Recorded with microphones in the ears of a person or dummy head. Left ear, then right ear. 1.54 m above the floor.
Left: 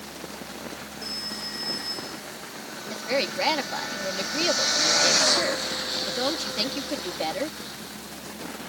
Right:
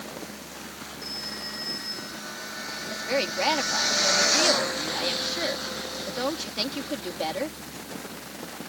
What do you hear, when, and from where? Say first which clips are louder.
1.0 s a phone ringing: left 1 dB; centre (ahead or behind)
2.9 s a woman speaking: left 1 dB; centre (ahead or behind)